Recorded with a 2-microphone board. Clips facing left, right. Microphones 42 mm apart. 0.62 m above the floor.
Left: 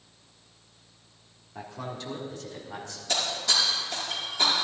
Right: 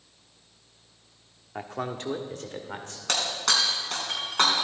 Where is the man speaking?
55° right (ahead or behind), 1.3 m; by 3.0 s 50° right (ahead or behind), 2 m.